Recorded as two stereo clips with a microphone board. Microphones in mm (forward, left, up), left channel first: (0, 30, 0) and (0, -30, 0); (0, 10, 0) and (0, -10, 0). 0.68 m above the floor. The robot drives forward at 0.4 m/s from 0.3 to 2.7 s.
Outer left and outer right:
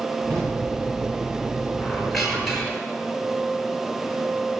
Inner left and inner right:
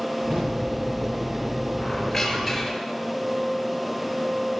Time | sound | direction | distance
0.3 | a drawer | 75° right (ahead or behind) | 8.5 m
1.8 | a squeak | centre (ahead or behind) | 5.5 m